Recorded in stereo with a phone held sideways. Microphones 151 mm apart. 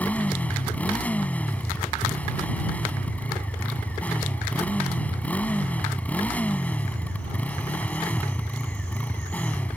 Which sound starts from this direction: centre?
A motorcycle, at 0.0 s.